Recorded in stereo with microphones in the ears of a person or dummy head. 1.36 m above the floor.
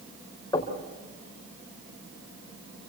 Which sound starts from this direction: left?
Knocking, at 0.5 s.